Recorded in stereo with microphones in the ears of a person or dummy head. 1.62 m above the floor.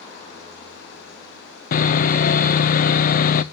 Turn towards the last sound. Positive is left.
turn(degrees=45)  # may be behind; listen again after turning